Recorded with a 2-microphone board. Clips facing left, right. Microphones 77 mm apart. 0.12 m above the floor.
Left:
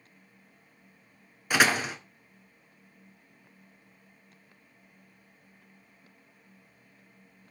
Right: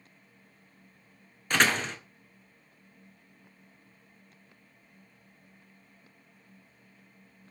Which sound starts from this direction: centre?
A door slam, at 1.5 s.